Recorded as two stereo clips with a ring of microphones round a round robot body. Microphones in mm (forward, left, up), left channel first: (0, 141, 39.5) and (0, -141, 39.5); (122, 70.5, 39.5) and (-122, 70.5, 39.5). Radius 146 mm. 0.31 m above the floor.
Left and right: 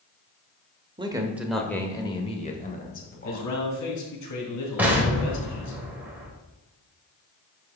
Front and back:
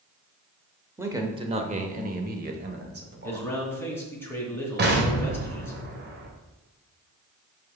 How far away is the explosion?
About 1.7 m.